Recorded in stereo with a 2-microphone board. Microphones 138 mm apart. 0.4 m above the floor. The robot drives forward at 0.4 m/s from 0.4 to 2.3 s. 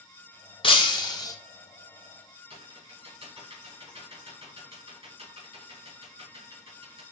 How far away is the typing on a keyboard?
About 3 m.